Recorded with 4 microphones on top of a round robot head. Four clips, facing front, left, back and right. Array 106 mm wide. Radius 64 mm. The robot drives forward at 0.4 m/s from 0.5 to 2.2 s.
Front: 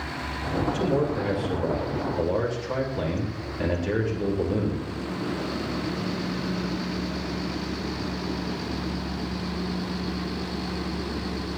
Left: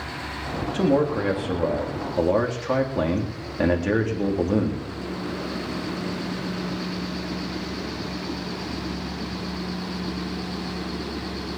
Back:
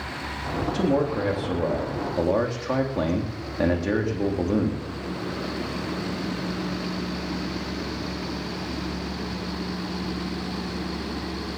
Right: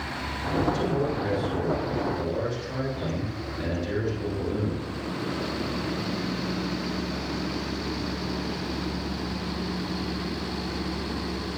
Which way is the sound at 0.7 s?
120° left.